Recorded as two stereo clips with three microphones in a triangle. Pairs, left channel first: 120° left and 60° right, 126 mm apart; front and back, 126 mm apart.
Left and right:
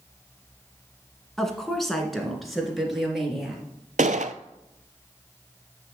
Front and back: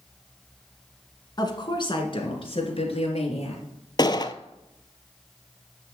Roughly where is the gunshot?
Ahead right.